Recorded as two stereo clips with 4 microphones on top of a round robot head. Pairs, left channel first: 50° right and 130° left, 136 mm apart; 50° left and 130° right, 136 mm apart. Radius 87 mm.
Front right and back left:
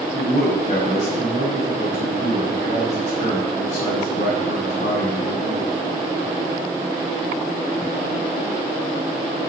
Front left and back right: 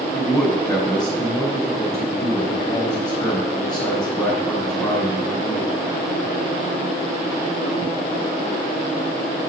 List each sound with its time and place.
0.1 s a man speaking: 15° right, 5 m